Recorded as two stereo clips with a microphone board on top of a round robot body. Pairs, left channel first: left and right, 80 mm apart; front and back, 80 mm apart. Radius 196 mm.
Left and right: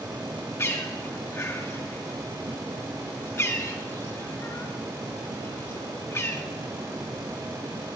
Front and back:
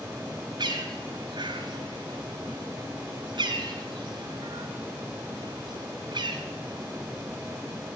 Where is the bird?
150° left, 1.5 m.